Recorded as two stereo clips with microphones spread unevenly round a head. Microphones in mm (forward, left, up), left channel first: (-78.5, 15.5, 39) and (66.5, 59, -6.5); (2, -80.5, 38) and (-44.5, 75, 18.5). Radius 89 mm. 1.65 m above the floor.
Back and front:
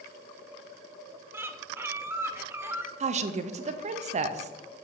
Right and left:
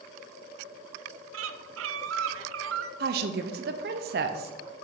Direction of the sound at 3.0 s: 70° left.